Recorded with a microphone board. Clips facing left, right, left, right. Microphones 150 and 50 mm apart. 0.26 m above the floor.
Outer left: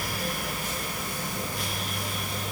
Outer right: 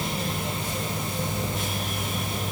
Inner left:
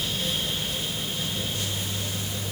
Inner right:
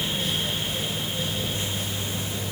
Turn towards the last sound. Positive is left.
No sound to turn to.